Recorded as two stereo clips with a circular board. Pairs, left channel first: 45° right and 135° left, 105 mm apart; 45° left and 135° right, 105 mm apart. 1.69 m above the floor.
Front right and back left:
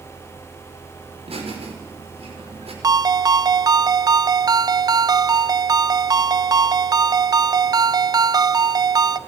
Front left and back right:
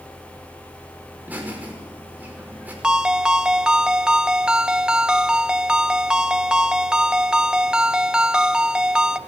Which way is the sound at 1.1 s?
150° left.